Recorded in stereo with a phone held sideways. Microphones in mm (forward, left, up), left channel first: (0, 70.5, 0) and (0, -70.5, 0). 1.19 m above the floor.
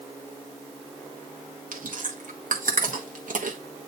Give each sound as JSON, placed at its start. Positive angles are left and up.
{"t": 1.7, "sound": "chewing", "side_deg": -70, "distance_m": 1.3}